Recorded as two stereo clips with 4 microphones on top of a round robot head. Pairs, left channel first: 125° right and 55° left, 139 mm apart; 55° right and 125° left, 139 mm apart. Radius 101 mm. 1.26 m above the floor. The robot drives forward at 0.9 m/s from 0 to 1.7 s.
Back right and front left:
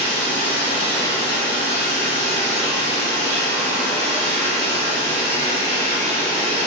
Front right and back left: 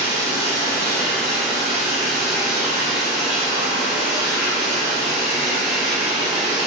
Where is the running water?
65° right, 0.9 m; by 6.7 s 150° right, 1.5 m.